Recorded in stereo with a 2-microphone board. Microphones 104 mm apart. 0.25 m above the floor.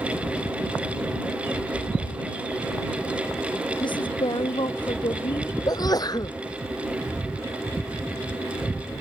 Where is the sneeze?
40° left (ahead or behind).